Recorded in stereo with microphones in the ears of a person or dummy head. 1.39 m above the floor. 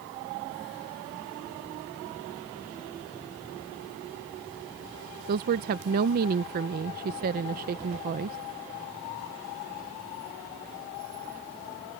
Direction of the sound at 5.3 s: 45° right (ahead or behind).